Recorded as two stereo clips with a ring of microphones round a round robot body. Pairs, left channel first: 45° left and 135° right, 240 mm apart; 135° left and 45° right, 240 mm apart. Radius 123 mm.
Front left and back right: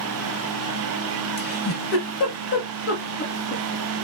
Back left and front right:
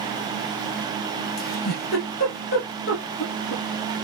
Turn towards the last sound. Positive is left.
turn(degrees=95)